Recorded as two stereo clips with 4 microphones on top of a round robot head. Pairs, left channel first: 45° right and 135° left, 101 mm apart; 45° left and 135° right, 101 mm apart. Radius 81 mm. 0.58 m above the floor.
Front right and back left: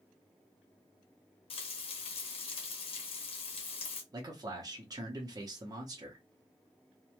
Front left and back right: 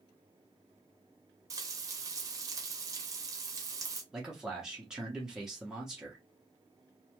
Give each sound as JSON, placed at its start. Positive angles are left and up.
{"t": 1.5, "sound": "frying", "azimuth_deg": -75, "distance_m": 0.9}
{"t": 4.1, "sound": "a man speaking", "azimuth_deg": 145, "distance_m": 0.9}